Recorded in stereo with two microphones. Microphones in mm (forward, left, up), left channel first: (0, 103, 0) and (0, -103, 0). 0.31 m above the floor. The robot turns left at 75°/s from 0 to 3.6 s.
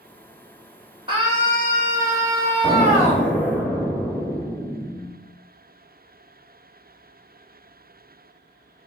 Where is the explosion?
140° left, 1.2 m; by 5.1 s 70° left, 1.2 m.